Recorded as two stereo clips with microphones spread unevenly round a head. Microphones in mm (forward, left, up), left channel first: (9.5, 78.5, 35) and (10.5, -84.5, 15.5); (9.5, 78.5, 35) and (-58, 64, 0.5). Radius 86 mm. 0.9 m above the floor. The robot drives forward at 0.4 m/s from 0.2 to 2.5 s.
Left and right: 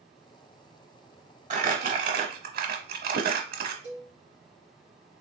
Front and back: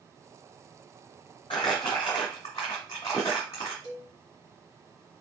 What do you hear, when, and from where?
1.5 s crumpling: 40° right, 1.3 m; by 3.7 s 55° right, 1.0 m
3.8 s a cowbell: 175° right, 2 m